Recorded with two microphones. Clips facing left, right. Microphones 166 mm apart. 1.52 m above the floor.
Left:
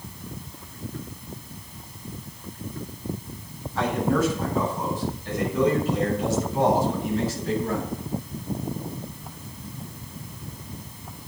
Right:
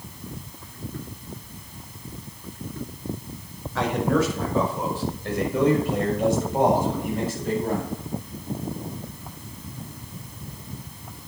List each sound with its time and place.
3.8 s a man speaking: 75° right (ahead or behind), 5.5 m; by 7.9 s 50° right (ahead or behind), 7.5 m